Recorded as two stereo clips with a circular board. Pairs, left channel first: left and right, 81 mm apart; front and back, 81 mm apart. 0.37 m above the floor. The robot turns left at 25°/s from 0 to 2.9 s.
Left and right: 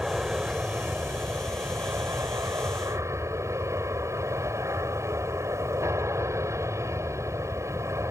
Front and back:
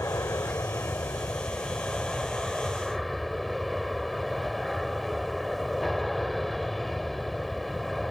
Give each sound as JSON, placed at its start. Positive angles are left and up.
{"t": 0.0, "sound": "an aircraft", "azimuth_deg": -15}